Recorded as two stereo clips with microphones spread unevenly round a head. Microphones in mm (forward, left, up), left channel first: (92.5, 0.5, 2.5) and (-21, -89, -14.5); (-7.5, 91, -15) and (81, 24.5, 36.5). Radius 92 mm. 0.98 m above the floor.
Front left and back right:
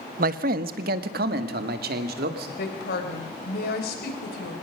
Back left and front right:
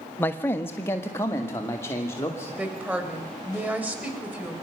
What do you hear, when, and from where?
0.2 s a man speaking: 155° right, 0.9 m; by 2.5 s 145° right, 2.5 m
2.6 s a woman speaking: 40° left, 4 m